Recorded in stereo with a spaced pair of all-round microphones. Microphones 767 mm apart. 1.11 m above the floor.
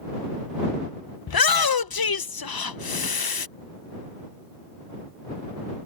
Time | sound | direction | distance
1.3 | a shout | 35° left (ahead or behind) | ?